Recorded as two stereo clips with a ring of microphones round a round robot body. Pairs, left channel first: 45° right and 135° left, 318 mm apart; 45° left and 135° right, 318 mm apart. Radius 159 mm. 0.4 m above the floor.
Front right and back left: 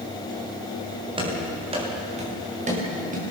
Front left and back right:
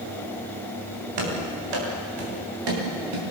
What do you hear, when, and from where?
1.2 s running footsteps: 150° right, 10 m; by 3.3 s 160° right, 9.5 m